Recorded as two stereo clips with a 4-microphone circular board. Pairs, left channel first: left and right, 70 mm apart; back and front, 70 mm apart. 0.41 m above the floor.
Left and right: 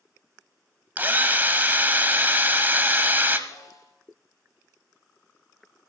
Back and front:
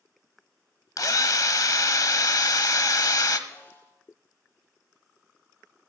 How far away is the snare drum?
About 6 m.